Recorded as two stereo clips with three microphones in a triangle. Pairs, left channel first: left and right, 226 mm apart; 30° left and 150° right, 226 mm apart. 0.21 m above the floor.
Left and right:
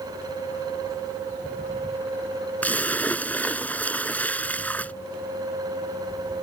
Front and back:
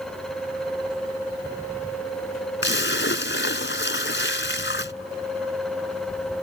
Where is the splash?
10° left.